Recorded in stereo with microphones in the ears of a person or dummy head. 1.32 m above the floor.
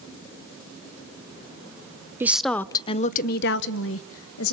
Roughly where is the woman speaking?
Centre.